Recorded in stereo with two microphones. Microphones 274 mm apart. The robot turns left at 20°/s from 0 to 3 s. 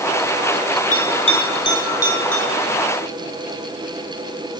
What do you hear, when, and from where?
0.9 s a bell: 55° left (ahead or behind), 1.6 m; by 2.4 s 25° left (ahead or behind), 1.6 m